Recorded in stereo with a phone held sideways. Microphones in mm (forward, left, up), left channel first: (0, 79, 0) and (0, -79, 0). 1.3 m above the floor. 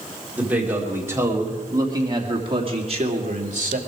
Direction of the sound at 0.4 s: 10° right (ahead or behind).